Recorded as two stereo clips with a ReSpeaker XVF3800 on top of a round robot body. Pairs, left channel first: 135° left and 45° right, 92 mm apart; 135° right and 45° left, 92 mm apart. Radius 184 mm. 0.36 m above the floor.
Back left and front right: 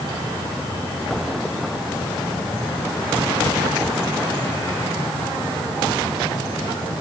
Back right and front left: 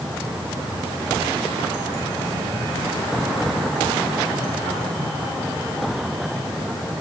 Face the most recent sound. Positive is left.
No sound to turn to.